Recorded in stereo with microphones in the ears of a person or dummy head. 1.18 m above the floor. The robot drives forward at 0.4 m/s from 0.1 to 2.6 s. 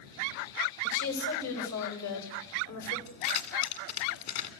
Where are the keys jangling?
50° left (ahead or behind), 2.5 m.